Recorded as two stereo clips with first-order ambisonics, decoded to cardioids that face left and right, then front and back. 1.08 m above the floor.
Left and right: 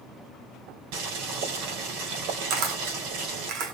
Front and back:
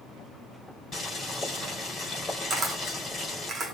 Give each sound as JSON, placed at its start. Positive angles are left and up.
{"t": 0.9, "sound": "boiling", "azimuth_deg": -75, "distance_m": 4.0}
{"t": 2.5, "sound": "a camera shutter", "azimuth_deg": -110, "distance_m": 1.7}